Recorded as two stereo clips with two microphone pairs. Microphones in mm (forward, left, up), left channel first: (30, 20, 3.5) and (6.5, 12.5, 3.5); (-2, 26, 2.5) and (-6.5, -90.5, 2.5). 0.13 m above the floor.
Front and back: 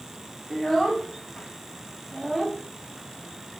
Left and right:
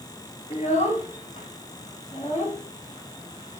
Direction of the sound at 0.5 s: 110° left.